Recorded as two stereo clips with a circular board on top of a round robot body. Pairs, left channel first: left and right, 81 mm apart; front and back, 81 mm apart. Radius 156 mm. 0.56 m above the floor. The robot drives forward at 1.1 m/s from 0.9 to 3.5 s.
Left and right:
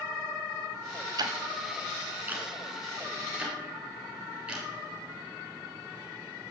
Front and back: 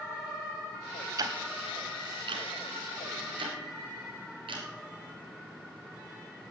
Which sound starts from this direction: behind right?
Ticking, at 1.2 s.